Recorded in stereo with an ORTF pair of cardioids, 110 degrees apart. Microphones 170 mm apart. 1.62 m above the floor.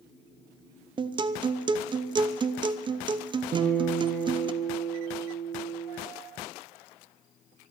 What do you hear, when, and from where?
1.0 s a guitar: 30° right, 0.8 m
3.5 s a guitar: 45° right, 2 m